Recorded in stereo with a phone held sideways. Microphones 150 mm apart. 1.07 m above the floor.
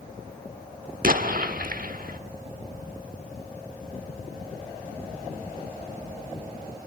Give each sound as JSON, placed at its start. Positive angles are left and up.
{"t": 1.0, "sound": "an explosion", "side_deg": -60, "distance_m": 1.2}